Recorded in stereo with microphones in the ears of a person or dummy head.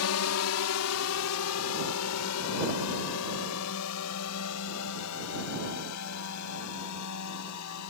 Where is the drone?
80° left.